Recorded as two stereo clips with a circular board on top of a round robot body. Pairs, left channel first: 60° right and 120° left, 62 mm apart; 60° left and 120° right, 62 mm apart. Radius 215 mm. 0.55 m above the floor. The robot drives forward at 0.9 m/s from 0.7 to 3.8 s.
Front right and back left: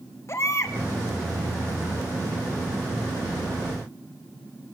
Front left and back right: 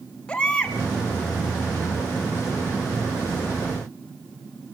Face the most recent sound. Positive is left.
turn(degrees=-95)